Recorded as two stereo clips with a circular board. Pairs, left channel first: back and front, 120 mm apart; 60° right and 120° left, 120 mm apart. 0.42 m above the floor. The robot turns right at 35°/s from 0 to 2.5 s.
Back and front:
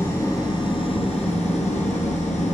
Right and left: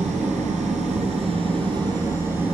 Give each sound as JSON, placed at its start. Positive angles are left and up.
{"t": 0.0, "sound": "an engine running", "azimuth_deg": 105, "distance_m": 2.5}